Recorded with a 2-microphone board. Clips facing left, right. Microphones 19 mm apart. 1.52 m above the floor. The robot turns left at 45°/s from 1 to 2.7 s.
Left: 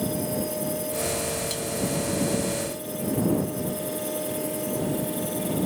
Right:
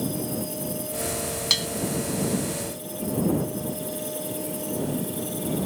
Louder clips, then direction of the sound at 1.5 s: Right 8 dB; 45° right (ahead or behind).